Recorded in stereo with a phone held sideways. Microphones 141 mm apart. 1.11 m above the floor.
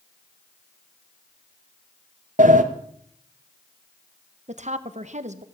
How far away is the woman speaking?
About 1.1 m.